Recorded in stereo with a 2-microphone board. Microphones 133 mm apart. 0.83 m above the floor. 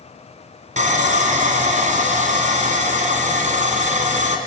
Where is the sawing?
65° right (ahead or behind), 1.9 m.